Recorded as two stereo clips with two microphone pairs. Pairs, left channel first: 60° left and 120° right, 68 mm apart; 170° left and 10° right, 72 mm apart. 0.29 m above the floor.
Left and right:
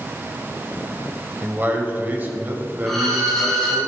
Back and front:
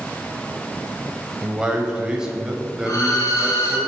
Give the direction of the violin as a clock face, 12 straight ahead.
7 o'clock.